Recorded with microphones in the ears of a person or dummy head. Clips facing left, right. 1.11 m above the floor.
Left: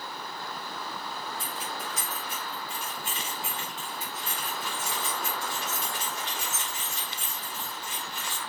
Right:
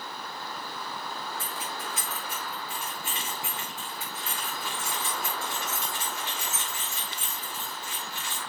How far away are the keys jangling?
About 5.5 m.